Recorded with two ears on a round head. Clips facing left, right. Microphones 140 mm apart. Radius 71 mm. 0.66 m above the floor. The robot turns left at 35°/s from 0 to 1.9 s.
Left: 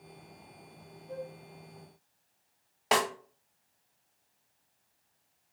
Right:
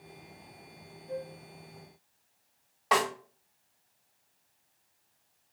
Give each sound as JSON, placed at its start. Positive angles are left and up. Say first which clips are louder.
{"t": 1.1, "sound": "a flute", "louder": "right 3 dB", "side_deg": -45, "distance_m": 1.6}
{"t": 2.9, "sound": "a snare drum", "louder": "right 1 dB", "side_deg": 25, "distance_m": 1.1}